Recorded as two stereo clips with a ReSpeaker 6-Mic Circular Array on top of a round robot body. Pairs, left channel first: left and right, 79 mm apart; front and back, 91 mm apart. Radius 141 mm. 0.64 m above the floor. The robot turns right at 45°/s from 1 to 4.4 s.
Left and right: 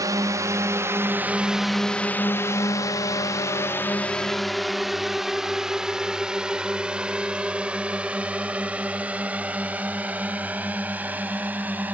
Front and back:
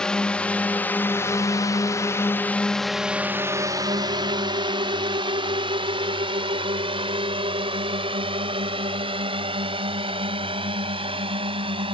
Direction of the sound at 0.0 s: 80° right.